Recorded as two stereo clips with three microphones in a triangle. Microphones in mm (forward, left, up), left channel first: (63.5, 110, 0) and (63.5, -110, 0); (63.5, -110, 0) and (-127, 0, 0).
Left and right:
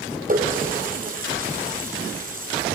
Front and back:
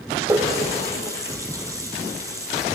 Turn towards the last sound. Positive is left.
turn(degrees=-135)